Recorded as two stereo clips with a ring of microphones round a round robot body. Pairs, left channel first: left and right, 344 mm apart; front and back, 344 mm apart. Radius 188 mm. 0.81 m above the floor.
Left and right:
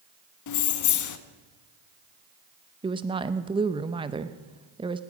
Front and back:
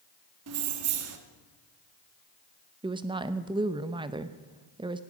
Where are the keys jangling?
130° left, 0.9 m.